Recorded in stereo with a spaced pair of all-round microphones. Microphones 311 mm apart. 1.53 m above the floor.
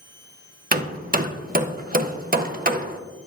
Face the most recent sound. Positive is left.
turn(degrees=-30)  # may be behind; listen again after turning